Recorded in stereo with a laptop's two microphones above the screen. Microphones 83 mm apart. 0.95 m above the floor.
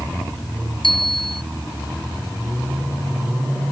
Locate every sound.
0.8 s a bicycle bell: 80° left